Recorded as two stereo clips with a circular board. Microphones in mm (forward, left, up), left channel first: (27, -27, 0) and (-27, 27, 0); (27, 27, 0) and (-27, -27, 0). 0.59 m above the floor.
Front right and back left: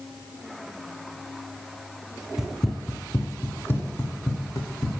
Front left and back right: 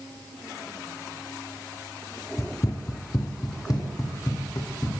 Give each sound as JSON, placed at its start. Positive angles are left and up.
{"t": 2.4, "sound": "running footsteps", "azimuth_deg": 55, "distance_m": 0.7}